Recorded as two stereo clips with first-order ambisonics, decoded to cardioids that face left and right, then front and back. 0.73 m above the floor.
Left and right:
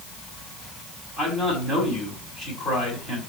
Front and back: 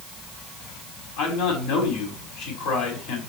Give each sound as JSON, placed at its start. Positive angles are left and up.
{"t": 1.2, "sound": "a man speaking", "azimuth_deg": -15, "distance_m": 4.5}